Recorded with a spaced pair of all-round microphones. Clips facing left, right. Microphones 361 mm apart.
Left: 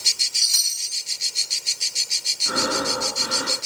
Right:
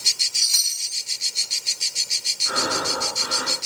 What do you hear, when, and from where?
0.3 s a chime: 80° right, 4.5 m
2.5 s breathing: 50° left (ahead or behind), 9.5 m